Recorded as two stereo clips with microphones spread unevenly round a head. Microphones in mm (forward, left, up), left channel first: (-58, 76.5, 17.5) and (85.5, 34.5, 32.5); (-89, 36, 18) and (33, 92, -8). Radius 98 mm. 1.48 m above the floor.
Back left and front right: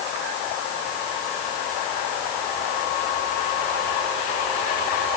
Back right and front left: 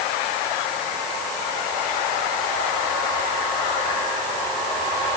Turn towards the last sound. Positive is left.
No sound to turn to.